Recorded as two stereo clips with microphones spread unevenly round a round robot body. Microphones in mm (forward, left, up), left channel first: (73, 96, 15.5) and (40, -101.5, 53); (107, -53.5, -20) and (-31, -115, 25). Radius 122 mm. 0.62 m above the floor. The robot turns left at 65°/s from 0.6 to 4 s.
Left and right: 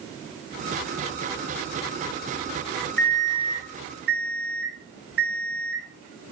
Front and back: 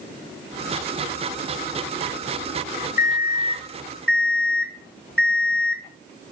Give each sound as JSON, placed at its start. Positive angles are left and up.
{"t": 3.0, "sound": "an alarm clock", "azimuth_deg": 5, "distance_m": 3.5}